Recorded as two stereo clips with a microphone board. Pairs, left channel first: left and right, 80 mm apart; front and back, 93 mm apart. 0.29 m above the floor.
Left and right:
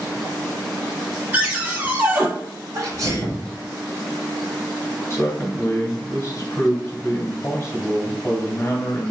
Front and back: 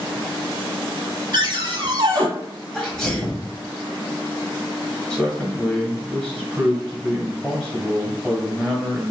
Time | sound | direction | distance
1.3 | a cupboard door | 150° right | 1.1 m
2.7 | a sneeze | 80° right | 1.3 m
5.1 | a man speaking | 95° left | 1.4 m